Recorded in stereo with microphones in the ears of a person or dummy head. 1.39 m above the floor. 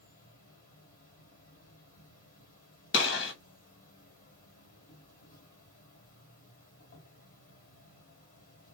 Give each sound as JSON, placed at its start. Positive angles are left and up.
{"t": 0.0, "sound": "an insect", "side_deg": 50, "distance_m": 1.9}
{"t": 2.9, "sound": "a gunshot", "side_deg": 75, "distance_m": 1.1}